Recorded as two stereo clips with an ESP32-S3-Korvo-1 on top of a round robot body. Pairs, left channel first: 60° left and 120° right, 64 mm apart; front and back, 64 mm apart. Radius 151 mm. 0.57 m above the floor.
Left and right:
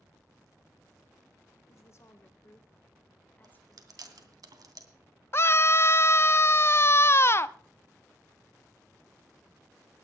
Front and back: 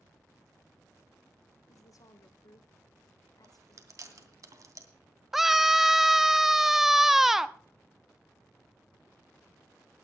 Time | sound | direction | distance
1.7 | a woman speaking | 25° left | 2.5 m
3.4 | chewing | 145° right | 2.5 m
5.3 | a scream | 95° left | 1.0 m